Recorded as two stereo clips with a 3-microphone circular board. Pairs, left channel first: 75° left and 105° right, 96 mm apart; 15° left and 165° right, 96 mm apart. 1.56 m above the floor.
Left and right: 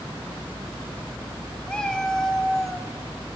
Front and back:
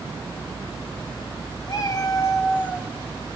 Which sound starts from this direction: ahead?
A cat meowing, at 1.7 s.